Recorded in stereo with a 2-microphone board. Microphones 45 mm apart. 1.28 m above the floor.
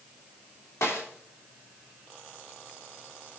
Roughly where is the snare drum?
Left.